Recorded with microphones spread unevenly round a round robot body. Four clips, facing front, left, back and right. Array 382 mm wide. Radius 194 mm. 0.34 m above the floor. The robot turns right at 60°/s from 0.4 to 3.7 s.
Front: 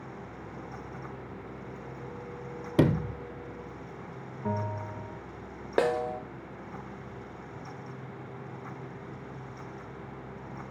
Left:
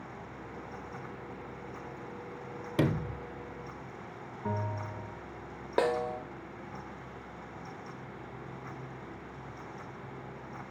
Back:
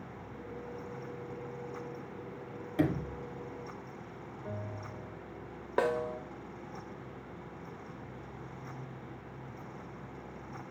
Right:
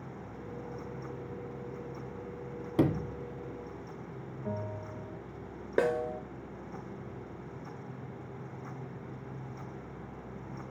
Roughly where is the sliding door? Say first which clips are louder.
Right 2 dB, front 6 dB; ahead.